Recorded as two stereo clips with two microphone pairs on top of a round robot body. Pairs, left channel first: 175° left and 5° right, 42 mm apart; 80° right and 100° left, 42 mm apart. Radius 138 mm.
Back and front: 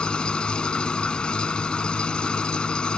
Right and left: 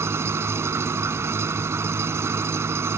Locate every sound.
0.0 s an engine running: 105° left